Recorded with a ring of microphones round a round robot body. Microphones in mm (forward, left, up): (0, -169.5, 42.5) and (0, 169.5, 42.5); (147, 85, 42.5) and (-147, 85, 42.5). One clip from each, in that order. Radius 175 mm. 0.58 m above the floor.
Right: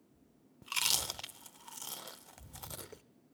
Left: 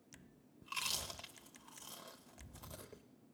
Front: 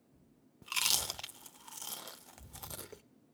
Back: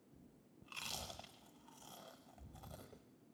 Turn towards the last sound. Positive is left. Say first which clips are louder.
# right 8 dB, front 14 dB
turn(degrees=-25)